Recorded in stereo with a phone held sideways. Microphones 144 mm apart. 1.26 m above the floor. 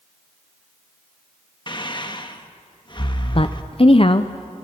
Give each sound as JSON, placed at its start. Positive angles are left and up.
{"t": 1.7, "sound": "breathing", "side_deg": 35, "distance_m": 1.1}
{"t": 3.4, "sound": "a woman speaking", "side_deg": 40, "distance_m": 0.6}